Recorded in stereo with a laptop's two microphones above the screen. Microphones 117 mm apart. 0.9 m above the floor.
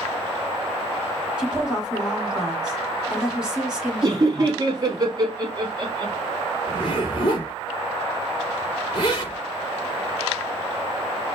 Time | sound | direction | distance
1.4 | a woman speaking | 5° right (ahead or behind) | 1.8 m
4.0 | laughter | 35° right (ahead or behind) | 2 m
6.7 | a zipper | 40° left (ahead or behind) | 2.5 m